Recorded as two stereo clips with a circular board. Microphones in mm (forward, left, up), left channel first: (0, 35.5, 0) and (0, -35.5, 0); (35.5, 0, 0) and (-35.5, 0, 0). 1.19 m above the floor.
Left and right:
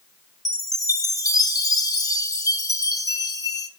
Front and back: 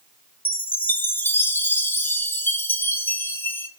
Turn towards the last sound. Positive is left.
turn(degrees=60)